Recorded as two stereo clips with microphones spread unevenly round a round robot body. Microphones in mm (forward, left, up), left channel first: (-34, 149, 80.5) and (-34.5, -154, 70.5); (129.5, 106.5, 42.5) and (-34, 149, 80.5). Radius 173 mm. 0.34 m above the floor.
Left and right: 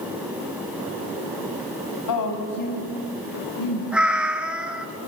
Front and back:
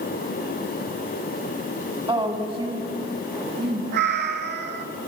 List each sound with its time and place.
2.1 s a woman speaking: 100° left, 2.5 m; by 3.8 s 105° left, 4.5 m
3.9 s a cat meowing: straight behind, 0.5 m